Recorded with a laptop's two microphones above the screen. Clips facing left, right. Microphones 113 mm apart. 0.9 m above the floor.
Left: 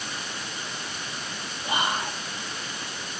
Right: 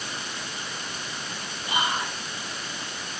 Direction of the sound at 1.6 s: 40° left (ahead or behind).